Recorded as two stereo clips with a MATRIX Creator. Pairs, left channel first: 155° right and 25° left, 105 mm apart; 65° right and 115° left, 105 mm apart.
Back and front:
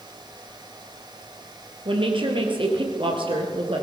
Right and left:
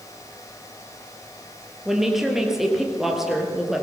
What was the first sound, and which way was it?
A woman speaking, 25° left.